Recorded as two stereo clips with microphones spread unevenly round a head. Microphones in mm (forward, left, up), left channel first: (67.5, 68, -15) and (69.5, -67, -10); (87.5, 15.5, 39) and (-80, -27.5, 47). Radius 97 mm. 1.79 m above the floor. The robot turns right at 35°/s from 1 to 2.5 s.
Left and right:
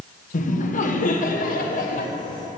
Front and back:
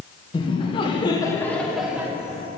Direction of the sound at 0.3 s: 80° left.